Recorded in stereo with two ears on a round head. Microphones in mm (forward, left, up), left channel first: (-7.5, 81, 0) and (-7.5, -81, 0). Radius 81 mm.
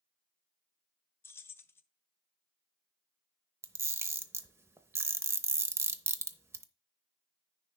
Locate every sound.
1.2 s keys jangling: 15° left (ahead or behind), 0.7 m
3.6 s a camera shutter: 15° right (ahead or behind), 0.7 m